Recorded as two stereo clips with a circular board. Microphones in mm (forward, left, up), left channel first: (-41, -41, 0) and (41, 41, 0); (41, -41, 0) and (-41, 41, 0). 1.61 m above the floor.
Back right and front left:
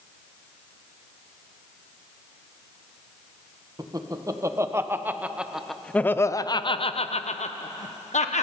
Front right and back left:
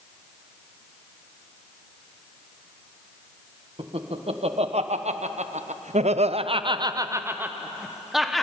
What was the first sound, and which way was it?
Laughter, 100° left.